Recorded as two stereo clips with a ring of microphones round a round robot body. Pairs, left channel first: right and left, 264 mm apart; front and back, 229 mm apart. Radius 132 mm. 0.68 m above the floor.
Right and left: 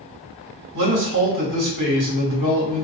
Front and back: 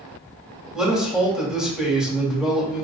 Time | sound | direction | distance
0.7 | a man speaking | 95° left | 1.9 m